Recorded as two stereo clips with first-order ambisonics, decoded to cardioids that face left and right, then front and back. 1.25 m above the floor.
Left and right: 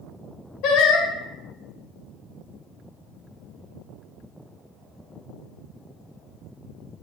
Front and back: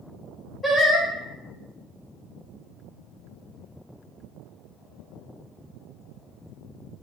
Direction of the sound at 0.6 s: 80° left.